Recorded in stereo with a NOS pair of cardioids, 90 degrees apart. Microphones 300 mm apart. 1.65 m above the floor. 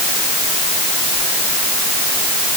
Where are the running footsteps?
No running footsteps in this recording.